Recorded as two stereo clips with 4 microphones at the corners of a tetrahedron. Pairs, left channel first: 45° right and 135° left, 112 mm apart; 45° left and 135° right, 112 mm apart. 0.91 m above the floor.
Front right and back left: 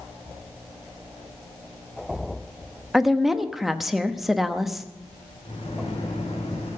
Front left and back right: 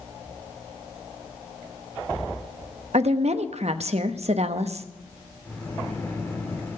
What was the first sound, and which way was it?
A woman speaking, 135° right.